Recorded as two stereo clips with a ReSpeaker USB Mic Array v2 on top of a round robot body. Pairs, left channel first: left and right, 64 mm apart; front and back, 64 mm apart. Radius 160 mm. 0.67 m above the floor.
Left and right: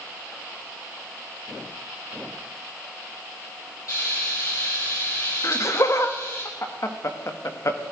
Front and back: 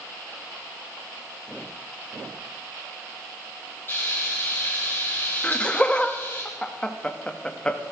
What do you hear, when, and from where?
3.9 s frying: 55° left, 6.5 m
5.4 s laughter: 70° left, 1.7 m